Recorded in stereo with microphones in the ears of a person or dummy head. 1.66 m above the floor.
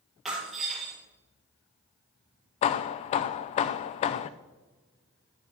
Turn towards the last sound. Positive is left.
turn(degrees=35)  # may be behind; listen again after turning